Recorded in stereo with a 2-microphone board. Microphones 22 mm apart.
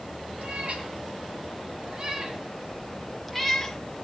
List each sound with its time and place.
0.4 s a cat meowing: 65° right (ahead or behind), 3.5 m; by 3.8 s 10° left (ahead or behind), 2.5 m